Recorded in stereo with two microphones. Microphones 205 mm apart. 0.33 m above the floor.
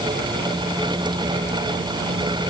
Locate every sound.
Only background noise.